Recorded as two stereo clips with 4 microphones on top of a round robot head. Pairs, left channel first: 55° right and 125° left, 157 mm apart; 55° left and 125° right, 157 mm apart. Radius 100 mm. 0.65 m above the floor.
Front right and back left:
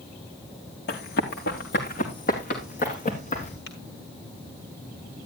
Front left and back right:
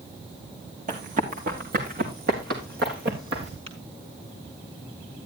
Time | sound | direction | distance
0.9 | running footsteps | 80° right | 3 m
3.7 | tapping | 70° right | 4 m